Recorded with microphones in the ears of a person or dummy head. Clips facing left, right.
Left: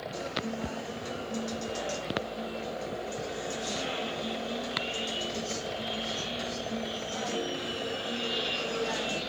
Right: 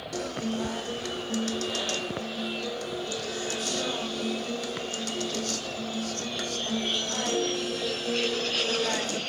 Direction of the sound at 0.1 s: 85° right.